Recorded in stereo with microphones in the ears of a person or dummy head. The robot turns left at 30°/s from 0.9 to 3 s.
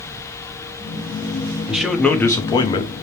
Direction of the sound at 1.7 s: 170° right.